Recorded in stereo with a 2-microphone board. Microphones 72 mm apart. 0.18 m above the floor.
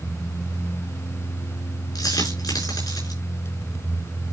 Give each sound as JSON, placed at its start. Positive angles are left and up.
{"t": 1.9, "sound": "a dropped coin", "side_deg": 65, "distance_m": 7.0}